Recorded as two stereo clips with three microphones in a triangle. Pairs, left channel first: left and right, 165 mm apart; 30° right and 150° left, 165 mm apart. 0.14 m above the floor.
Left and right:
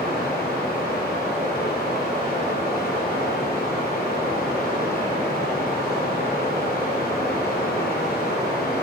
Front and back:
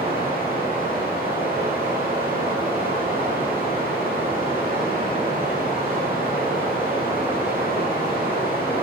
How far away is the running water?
About 2.5 m.